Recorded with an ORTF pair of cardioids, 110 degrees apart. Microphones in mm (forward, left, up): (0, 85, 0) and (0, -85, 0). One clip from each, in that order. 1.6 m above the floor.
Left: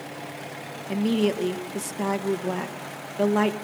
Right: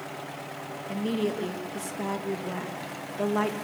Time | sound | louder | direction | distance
0.9 | a woman speaking | left 5 dB | 25° left | 2 m